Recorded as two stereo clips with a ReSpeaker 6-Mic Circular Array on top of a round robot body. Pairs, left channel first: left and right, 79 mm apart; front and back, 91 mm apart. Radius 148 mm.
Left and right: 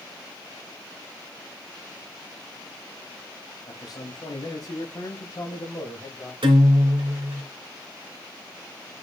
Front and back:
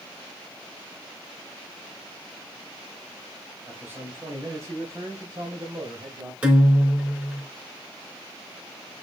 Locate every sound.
3.7 s a man speaking: 115° left, 2.5 m; by 6.3 s 135° left, 3.5 m
6.4 s a guitar: 100° right, 3 m